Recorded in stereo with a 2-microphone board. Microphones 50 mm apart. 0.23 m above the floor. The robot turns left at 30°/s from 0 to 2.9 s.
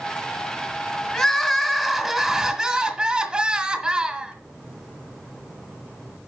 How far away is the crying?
About 1.5 m.